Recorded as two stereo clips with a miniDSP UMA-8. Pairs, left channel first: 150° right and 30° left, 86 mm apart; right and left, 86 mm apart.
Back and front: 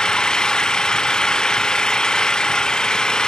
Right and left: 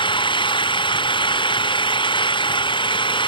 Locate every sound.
0.0 s an engine running: 70° right